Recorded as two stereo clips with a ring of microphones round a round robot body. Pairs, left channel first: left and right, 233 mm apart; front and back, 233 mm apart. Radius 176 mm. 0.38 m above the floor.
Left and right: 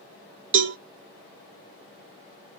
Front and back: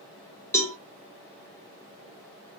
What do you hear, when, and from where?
0.5 s a cowbell: 80° right, 1.0 m